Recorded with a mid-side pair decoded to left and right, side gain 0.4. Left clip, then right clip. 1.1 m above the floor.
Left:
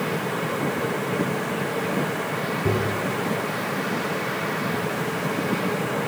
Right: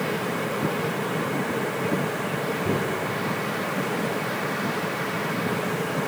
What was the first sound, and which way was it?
Tapping, 70° left.